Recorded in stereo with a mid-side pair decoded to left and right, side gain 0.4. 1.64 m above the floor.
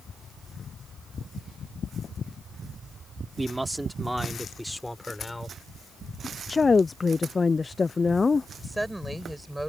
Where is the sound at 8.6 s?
10° right.